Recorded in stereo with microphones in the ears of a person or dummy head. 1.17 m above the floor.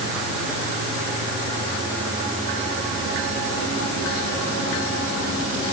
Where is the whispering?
No whispering in this recording.